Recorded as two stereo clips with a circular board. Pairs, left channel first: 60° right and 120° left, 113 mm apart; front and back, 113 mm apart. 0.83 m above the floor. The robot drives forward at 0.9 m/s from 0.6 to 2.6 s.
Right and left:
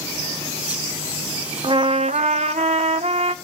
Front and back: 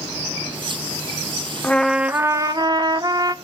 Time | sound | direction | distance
1.6 | a trumpet | 75° left | 0.8 m